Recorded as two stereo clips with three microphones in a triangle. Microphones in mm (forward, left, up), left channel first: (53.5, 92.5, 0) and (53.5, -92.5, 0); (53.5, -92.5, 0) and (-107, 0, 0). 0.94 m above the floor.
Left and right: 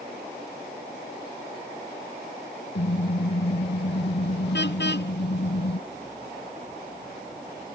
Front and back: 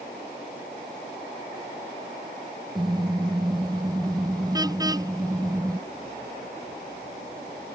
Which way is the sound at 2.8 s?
85° left.